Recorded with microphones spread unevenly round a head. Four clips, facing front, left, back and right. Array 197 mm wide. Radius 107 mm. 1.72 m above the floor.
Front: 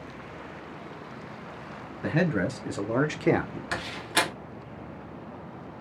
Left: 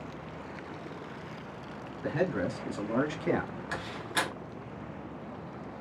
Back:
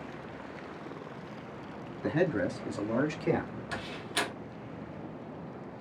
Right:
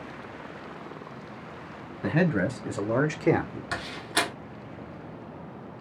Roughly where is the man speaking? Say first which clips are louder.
Right 5 dB, front 2 dB; ahead right.